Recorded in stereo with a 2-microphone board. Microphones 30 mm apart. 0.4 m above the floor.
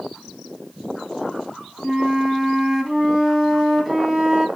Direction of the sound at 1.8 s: Centre (ahead or behind).